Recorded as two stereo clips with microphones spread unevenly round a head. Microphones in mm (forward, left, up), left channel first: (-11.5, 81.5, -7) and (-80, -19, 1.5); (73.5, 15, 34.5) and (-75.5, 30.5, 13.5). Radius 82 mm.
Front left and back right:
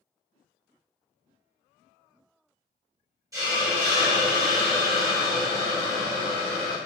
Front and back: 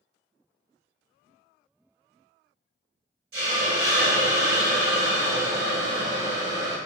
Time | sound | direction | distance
3.3 | a hiss | 175° right | 1.1 m